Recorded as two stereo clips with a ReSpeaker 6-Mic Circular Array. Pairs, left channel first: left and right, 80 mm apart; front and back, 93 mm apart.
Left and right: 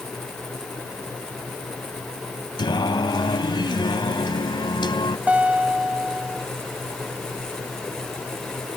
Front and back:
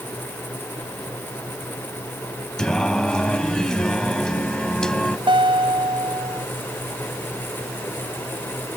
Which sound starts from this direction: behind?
A guitar, at 5.3 s.